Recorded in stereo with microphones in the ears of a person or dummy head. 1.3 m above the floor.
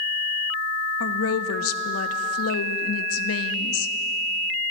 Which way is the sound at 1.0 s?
80° left.